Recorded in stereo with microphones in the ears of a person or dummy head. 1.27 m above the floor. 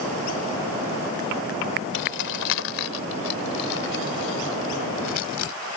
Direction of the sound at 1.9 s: 60° left (ahead or behind).